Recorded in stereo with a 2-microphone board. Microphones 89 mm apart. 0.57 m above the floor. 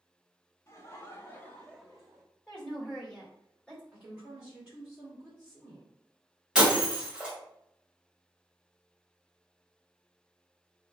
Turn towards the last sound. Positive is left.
turn(degrees=-10)  # may be behind; listen again after turning